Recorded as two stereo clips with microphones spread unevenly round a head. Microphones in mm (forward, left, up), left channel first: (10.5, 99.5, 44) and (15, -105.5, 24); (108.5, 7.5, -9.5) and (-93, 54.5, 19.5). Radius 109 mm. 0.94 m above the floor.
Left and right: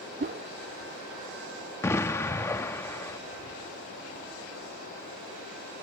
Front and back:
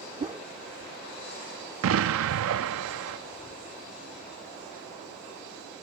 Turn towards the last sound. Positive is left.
turn(degrees=170)